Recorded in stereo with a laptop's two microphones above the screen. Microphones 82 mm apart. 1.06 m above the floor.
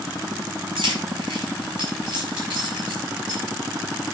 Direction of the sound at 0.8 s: 85° right.